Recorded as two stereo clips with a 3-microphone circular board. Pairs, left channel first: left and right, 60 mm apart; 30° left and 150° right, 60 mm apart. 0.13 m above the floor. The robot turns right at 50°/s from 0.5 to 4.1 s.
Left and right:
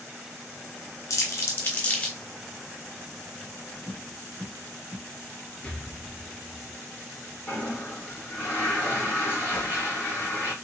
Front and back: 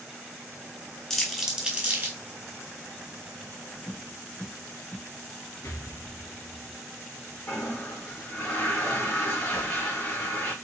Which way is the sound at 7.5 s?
40° left.